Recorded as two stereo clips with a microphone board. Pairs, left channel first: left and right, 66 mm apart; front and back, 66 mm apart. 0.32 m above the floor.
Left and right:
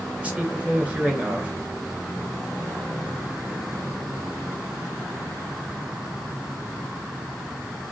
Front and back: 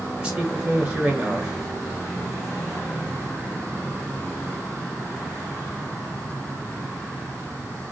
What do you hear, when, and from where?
0.2 s a man speaking: 130° right, 1.2 m